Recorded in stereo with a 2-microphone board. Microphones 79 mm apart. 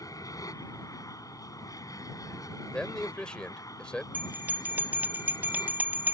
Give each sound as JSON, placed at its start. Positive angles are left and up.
{"t": 0.0, "sound": "an aircraft", "side_deg": 45}
{"t": 2.7, "sound": "a man speaking", "side_deg": 10}
{"t": 4.1, "sound": "a bell", "side_deg": -20}